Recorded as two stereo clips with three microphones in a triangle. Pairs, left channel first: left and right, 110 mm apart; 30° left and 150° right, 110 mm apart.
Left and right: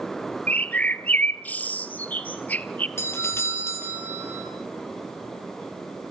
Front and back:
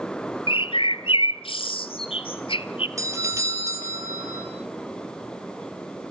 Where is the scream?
I don't hear a scream.